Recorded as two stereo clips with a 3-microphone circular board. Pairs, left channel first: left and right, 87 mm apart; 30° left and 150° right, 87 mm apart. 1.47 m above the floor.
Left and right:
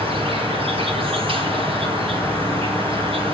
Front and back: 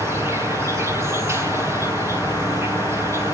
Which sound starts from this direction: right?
An insect, at 0.0 s.